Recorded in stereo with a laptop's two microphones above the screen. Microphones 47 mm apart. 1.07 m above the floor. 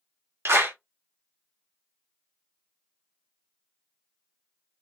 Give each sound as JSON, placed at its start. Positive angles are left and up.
{"t": 0.5, "sound": "a clap", "side_deg": -70, "distance_m": 0.9}